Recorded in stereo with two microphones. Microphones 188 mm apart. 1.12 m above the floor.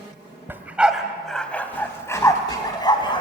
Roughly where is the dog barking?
Centre.